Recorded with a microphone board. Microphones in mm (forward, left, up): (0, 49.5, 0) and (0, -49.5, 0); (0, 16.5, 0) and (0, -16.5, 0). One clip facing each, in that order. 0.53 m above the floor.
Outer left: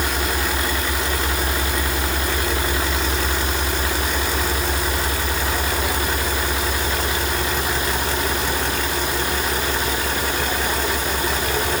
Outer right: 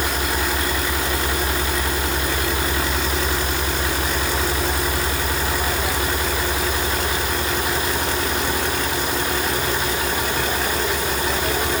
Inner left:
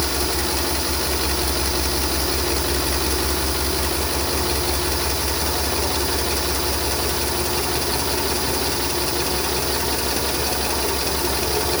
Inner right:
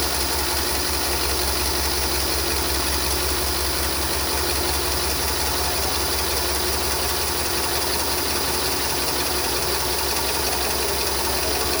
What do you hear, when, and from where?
Only background noise.